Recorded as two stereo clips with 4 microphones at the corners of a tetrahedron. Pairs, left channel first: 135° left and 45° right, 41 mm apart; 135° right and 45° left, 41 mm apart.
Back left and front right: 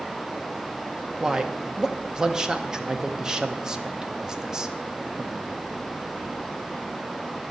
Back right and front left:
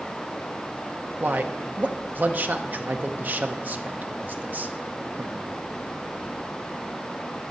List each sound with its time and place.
1.2 s a man speaking: 20° left, 0.8 m